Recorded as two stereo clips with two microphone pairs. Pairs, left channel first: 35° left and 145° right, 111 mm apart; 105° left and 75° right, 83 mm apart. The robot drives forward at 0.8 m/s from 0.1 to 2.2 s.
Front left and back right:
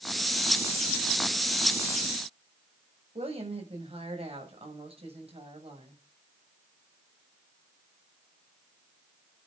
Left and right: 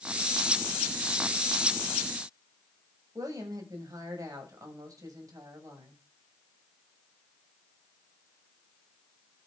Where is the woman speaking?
120° right, 7 m.